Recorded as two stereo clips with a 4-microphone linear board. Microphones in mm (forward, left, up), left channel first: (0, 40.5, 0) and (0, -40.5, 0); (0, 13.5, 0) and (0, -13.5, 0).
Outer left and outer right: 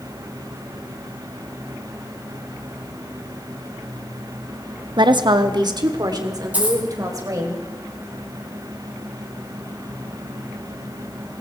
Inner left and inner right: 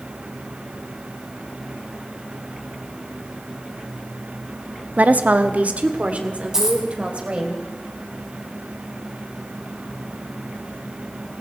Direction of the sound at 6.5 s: 20° right (ahead or behind).